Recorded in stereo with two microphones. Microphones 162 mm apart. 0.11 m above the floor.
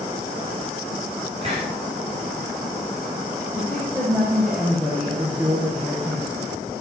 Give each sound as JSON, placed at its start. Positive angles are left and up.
{"t": 1.4, "sound": "a hiss", "side_deg": -40, "distance_m": 8.5}
{"t": 3.5, "sound": "a woman speaking", "side_deg": -10, "distance_m": 6.0}